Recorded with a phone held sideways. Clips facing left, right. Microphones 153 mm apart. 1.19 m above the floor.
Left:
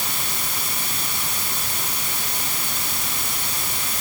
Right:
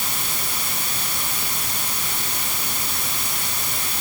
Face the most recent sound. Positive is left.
No sound to turn to.